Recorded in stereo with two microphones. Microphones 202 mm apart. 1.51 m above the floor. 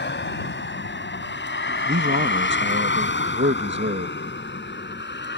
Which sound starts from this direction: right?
A man speaking, at 1.9 s.